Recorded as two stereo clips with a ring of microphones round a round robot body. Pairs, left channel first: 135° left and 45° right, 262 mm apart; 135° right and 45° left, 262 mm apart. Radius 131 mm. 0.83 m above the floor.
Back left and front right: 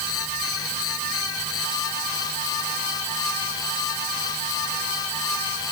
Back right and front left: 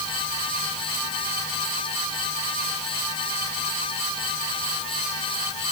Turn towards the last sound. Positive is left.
No sound to turn to.